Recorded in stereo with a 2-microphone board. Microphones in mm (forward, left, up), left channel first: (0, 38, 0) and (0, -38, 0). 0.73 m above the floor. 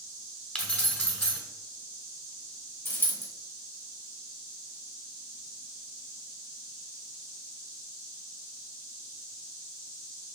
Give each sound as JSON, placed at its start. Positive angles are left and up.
{"t": 0.6, "sound": "keys jangling", "side_deg": 15, "distance_m": 1.1}
{"t": 2.9, "sound": "a dropped coin", "side_deg": 30, "distance_m": 1.1}